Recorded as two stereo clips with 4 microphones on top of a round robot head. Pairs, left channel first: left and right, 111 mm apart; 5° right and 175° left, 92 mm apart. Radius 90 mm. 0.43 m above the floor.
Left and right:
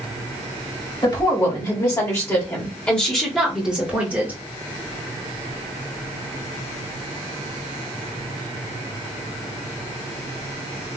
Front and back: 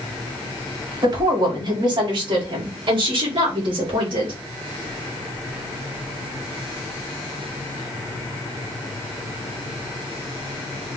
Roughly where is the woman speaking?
Behind left.